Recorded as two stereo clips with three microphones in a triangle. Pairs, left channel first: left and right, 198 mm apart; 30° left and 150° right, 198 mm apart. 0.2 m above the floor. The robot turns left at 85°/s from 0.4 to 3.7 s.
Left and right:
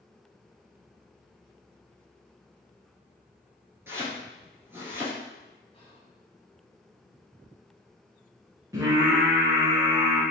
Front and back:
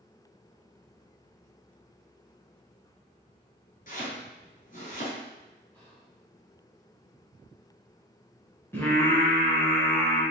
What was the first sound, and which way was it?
Chopping, 10° right.